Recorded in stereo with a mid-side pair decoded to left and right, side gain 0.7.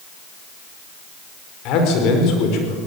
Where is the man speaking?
60° left, 5 m.